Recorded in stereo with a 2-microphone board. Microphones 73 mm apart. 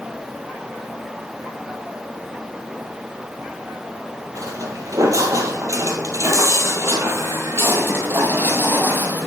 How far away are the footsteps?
About 2.0 m.